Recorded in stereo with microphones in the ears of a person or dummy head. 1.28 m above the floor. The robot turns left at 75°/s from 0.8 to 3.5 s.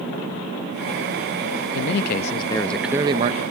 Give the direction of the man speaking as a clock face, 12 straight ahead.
9 o'clock.